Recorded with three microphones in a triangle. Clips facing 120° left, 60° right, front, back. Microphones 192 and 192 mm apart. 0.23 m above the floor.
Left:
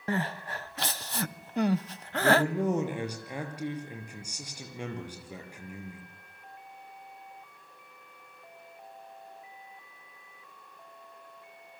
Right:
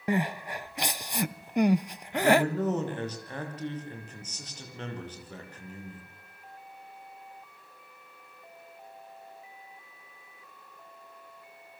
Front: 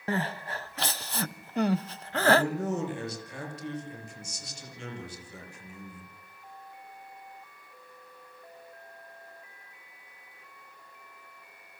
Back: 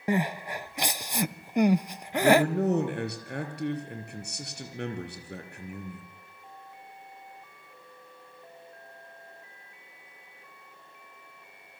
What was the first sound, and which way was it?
Crying, 120° right.